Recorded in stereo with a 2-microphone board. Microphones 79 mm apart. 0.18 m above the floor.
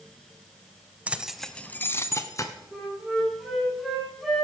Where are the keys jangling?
15° right (ahead or behind), 0.9 m; by 2.5 s 40° left (ahead or behind), 1.5 m.